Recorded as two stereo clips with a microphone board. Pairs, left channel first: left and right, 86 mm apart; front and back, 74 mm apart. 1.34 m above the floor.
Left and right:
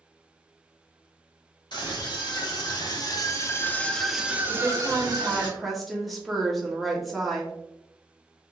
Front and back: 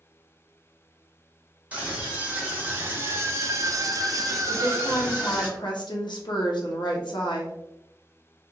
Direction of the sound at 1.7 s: 110° left.